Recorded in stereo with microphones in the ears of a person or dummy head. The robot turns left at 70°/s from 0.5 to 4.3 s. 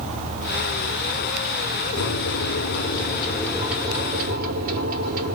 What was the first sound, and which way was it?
A microwave, 115° left.